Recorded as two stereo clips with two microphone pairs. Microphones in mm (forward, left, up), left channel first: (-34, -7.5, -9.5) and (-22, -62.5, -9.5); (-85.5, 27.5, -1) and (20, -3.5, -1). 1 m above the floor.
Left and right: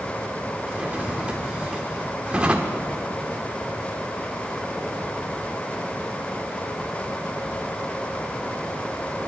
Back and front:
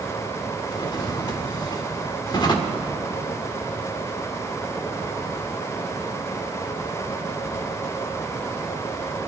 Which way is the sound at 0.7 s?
150° right.